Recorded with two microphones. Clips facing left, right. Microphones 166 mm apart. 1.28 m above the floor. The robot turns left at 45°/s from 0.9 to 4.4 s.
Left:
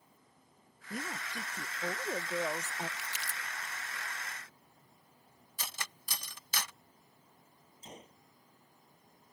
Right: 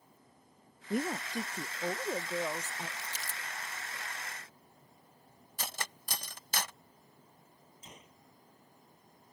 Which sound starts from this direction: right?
Cutlery clinking, at 5.6 s.